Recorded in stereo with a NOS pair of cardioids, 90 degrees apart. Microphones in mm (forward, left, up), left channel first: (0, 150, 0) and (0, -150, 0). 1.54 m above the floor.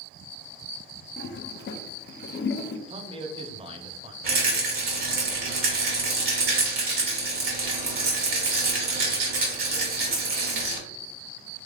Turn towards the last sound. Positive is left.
turn(degrees=-45)